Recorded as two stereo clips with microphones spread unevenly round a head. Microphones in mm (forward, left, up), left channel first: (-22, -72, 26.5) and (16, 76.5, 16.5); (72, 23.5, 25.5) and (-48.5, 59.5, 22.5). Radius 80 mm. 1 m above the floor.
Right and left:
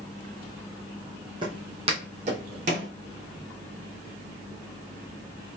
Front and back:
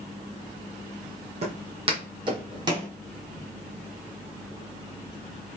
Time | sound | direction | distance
1.4 | footsteps | 135° left | 1.9 m